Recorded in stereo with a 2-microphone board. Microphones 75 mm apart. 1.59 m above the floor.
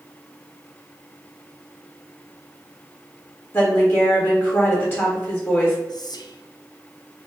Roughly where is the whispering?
Left.